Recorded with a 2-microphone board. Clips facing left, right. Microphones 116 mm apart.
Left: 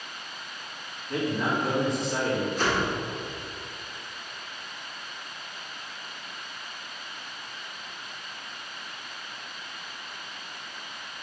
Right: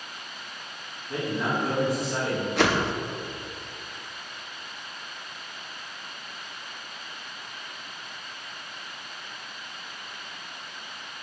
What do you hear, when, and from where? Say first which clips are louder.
1.1 s a man speaking: left 1 dB; 10° right (ahead or behind), 2 m
2.6 s a whoosh: right 3 dB; 75° right (ahead or behind), 0.5 m